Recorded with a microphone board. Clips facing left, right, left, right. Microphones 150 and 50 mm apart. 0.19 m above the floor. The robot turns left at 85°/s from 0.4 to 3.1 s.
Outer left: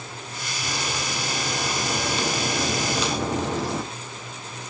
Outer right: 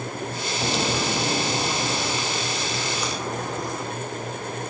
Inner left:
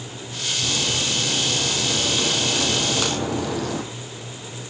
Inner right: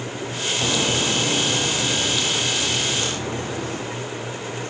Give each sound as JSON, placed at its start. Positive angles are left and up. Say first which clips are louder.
{"t": 0.6, "sound": "a crack", "louder": "outer right 6 dB, inner right 4 dB", "azimuth_deg": -70, "distance_m": 3.0}